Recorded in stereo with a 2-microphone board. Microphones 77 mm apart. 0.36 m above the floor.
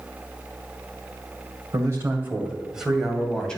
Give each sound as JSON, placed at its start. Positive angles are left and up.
{"t": 1.7, "sound": "a man speaking", "side_deg": -40, "distance_m": 2.0}